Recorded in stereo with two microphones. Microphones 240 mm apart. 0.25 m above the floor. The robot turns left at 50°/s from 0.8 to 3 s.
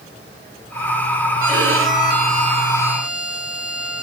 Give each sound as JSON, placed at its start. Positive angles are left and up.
{"t": 1.4, "sound": "a violin", "azimuth_deg": -95, "distance_m": 1.4}